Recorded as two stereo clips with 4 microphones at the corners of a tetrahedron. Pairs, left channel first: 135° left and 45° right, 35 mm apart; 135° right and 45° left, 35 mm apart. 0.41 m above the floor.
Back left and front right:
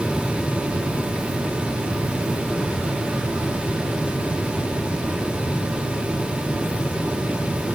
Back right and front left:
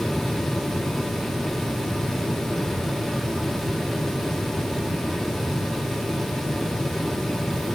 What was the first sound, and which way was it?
Only background noise.